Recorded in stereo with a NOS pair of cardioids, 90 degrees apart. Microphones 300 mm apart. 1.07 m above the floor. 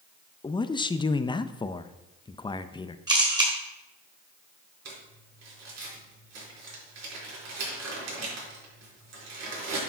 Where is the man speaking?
15° left, 0.6 m.